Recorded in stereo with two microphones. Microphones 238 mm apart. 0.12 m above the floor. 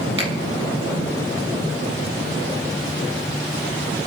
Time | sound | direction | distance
0.2 | a finger snap | 55° right (ahead or behind) | 3 m